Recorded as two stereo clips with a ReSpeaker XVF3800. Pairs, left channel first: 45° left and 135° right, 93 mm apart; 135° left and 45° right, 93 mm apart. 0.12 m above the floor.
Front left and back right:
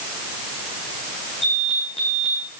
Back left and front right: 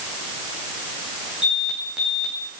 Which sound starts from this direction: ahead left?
An alarm, at 1.4 s.